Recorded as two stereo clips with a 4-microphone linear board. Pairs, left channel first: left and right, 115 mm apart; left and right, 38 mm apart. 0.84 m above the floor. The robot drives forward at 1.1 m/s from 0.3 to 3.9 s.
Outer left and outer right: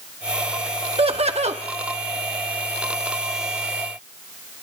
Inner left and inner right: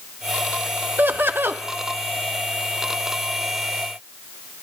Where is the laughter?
55° right (ahead or behind), 1.5 m; by 1.6 s 70° right (ahead or behind), 1.3 m.